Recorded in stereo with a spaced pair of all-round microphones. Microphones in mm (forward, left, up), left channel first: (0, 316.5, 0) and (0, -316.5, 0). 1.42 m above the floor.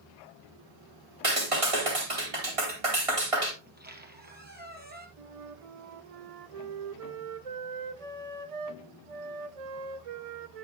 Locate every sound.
1.2 s a clap: 55° right (ahead or behind), 3.5 m
3.6 s a squeak: 15° right (ahead or behind), 1.6 m
5.2 s a flute: 60° right (ahead or behind), 0.8 m